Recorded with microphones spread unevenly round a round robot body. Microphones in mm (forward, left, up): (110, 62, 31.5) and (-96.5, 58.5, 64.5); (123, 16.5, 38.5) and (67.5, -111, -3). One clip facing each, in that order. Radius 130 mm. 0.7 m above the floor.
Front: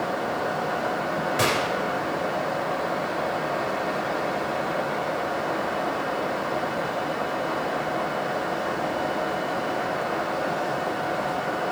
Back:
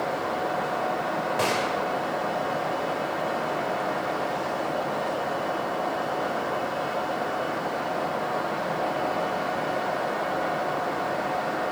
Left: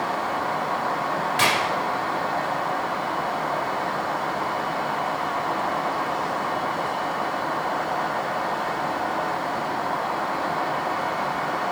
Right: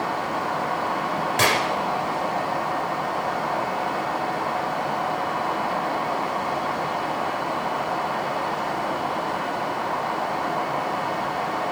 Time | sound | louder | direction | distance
1.4 | a gunshot | front 1 dB, right 2 dB | 75° right | 2 m